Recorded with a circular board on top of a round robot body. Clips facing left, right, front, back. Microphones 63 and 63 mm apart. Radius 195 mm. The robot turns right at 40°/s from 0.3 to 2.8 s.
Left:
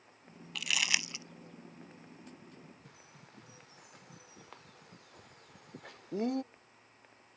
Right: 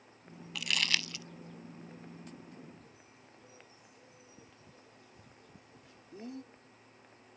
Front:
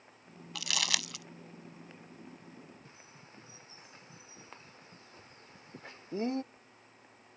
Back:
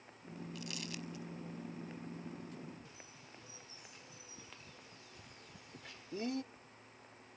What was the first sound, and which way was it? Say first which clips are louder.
Crumpling: even, front 12 dB; straight ahead.